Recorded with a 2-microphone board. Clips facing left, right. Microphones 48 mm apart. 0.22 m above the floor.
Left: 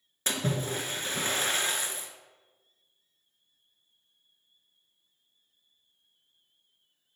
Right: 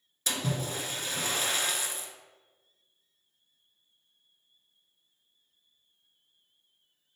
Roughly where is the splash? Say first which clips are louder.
Left 2 dB; left.